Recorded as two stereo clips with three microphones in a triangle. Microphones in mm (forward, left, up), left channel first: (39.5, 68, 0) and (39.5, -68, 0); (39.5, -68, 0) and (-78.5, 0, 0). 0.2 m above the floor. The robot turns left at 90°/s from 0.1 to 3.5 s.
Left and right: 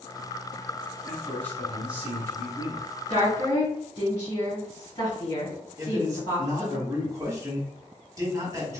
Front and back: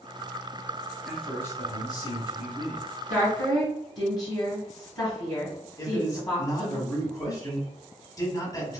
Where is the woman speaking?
90° left, 1.7 m; by 6.8 s 55° left, 1.7 m.